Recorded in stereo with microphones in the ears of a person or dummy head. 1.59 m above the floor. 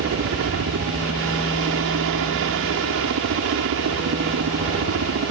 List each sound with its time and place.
0.0 s a helicopter: 65° right (ahead or behind)